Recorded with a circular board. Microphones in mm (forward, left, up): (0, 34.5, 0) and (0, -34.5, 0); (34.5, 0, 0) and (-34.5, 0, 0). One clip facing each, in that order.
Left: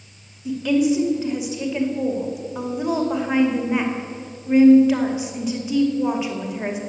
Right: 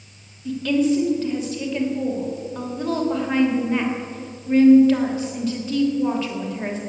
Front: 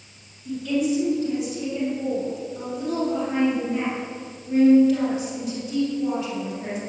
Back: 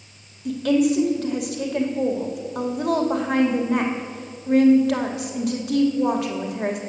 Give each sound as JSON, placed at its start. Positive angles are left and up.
{"t": 0.5, "sound": "a woman speaking", "azimuth_deg": 165, "distance_m": 2.5}